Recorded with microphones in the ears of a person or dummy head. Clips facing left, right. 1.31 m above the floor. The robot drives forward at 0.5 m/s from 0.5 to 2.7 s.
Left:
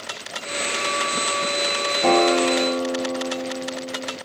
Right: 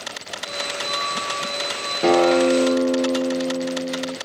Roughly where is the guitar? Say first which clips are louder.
Right 3 dB; right.